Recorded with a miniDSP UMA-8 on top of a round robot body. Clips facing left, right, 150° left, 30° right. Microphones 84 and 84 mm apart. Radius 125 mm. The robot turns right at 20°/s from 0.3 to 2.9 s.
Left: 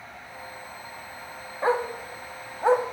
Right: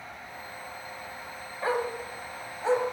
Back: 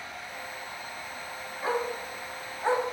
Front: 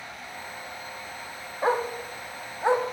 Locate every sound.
1.6 s a dog barking: 25° left, 1.5 m; by 2.8 s 50° left, 1.5 m